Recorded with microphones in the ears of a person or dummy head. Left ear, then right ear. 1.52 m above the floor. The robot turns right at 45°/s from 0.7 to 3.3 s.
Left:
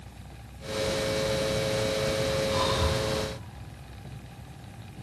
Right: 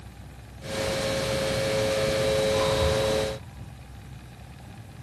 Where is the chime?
I don't hear a chime.